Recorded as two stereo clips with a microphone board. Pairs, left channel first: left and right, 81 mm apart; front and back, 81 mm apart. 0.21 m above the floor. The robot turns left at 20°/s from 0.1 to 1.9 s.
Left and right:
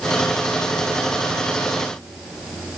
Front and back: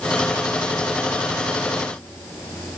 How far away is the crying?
I don't hear crying.